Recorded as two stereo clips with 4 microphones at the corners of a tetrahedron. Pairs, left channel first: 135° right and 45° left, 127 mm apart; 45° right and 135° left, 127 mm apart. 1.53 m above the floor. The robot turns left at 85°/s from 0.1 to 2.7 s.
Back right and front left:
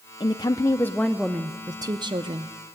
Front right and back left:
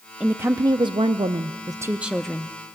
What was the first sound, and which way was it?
A woman speaking, 145° right.